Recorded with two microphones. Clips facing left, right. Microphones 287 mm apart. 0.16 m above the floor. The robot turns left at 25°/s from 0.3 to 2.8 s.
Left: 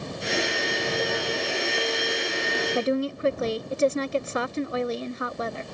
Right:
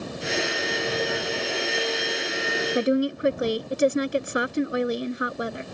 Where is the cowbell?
I don't hear a cowbell.